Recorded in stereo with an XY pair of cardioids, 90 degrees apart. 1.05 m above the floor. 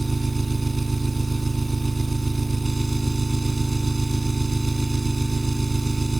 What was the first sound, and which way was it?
An engine running, 25° right.